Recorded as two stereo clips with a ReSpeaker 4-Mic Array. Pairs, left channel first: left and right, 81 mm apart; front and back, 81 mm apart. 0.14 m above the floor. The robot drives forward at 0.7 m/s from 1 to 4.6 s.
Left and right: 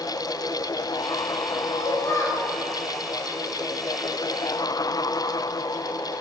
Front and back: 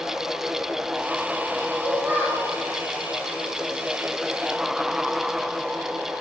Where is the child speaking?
105° left, 1.3 m; by 2.5 s 130° left, 1.5 m.